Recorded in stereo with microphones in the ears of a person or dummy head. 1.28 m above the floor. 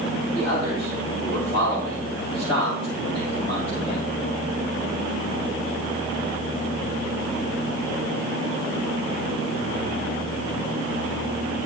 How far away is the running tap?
I don't hear a running tap.